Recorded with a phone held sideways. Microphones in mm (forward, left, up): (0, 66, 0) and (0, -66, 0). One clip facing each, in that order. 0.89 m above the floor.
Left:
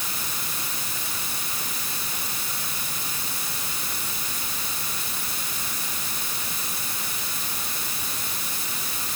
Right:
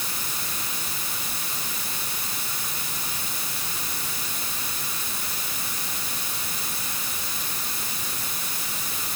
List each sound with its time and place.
Only background noise.